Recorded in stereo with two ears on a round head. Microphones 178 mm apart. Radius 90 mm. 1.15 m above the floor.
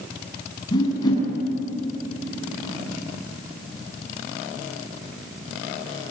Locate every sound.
0.7 s a whoosh: 20° left (ahead or behind), 7.5 m